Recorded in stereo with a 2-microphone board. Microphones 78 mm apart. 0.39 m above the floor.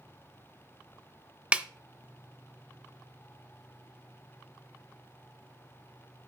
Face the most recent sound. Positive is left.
turn(degrees=-15)  # may be behind; listen again after turning